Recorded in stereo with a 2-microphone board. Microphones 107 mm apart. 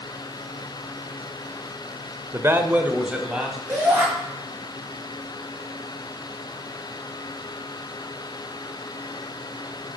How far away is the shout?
About 6 m.